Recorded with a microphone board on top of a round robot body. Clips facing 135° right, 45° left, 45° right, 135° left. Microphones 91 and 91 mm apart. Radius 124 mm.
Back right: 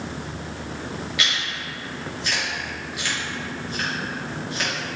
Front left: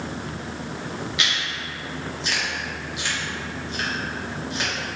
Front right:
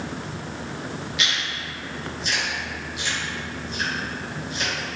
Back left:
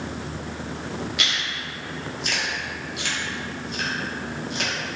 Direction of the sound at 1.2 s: 110° left.